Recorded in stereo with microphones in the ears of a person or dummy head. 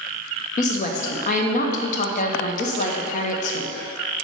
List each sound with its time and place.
0.6 s a woman speaking: 45° left (ahead or behind), 0.8 m